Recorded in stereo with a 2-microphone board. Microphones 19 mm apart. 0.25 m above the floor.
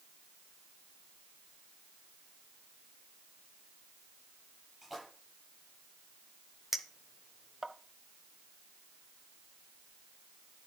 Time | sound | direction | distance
4.8 | a splash | 5° left (ahead or behind) | 6.5 m
6.7 | a clink | 5° right (ahead or behind) | 0.9 m